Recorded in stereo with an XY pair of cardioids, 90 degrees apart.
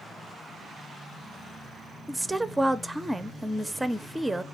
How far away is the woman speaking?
About 0.6 m.